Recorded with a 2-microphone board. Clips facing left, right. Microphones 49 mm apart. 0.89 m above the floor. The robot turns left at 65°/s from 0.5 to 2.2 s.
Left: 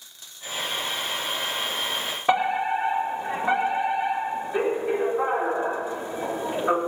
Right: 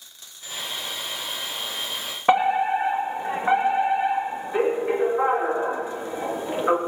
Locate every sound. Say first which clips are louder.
2.3 s a fire alarm: right 3 dB; 30° right (ahead or behind), 2.5 m